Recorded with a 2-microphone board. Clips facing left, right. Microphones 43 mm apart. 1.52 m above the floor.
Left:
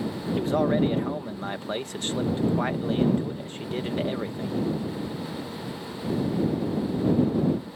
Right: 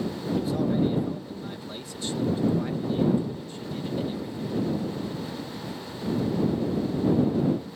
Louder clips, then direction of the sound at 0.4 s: Left 3 dB; 50° left (ahead or behind).